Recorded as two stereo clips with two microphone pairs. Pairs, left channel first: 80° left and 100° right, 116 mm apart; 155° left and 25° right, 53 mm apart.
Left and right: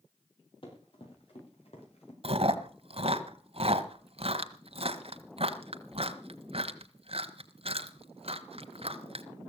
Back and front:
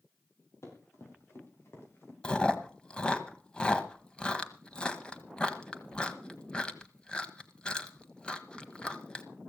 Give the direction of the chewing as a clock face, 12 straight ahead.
4 o'clock.